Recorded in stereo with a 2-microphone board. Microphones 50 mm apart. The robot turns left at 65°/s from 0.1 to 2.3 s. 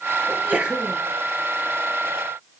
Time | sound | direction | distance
0.3 | a sneeze | 135° right | 4.5 m